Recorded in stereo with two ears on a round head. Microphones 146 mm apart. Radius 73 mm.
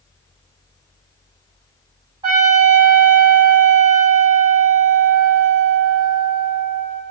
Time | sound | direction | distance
2.2 | a trumpet | 25° right (ahead or behind) | 1.8 m